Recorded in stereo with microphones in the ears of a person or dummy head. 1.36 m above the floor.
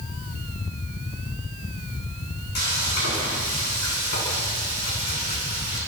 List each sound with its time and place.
2.5 s frying: 55° left (ahead or behind), 8 m